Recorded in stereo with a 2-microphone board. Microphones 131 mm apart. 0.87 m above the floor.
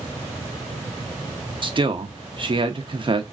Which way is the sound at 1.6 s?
40° right (ahead or behind).